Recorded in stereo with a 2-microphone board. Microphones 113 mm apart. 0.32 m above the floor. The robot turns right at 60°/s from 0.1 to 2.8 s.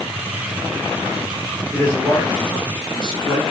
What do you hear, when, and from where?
1.7 s a man speaking: 20° left, 1.4 m; by 3.4 s 85° left, 1.4 m